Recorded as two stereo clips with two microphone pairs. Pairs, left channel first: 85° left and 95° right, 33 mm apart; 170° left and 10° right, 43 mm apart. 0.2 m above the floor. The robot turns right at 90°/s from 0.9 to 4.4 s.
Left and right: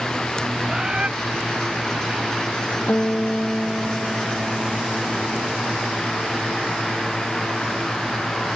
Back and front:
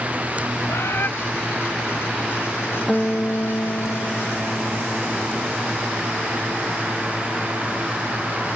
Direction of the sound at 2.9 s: 85° left.